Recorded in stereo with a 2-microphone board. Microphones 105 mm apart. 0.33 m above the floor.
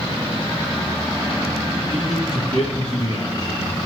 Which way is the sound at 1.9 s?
40° left (ahead or behind).